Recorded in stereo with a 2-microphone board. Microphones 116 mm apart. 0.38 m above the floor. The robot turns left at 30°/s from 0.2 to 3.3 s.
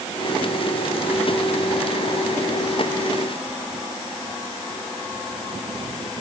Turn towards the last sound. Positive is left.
No sound to turn to.